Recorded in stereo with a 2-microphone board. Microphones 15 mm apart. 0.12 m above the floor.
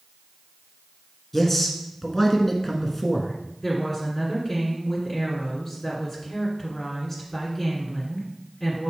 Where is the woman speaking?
15° left (ahead or behind), 1.8 m.